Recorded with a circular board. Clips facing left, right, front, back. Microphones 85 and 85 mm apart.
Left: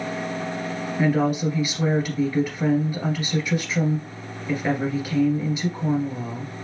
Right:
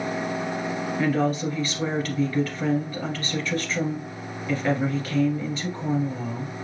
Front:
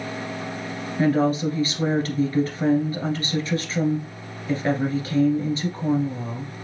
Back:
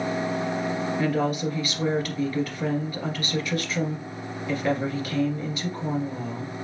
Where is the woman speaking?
25° left, 1.9 m.